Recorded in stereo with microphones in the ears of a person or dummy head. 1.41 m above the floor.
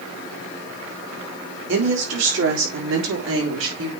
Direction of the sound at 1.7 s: 65° right (ahead or behind).